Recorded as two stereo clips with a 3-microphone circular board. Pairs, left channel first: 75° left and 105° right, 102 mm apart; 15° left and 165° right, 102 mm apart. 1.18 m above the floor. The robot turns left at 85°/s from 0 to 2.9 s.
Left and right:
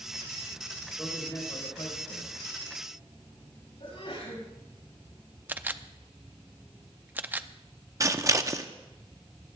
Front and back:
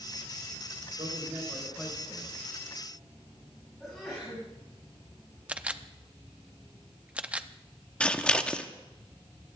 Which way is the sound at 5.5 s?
120° right.